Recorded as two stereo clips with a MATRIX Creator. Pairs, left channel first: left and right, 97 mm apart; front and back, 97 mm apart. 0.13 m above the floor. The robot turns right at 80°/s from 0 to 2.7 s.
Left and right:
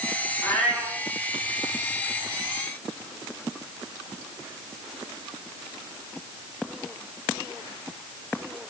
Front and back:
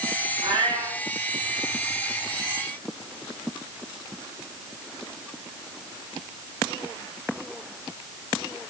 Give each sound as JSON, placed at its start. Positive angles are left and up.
{"t": 0.4, "sound": "a cat meowing", "azimuth_deg": 150, "distance_m": 5.5}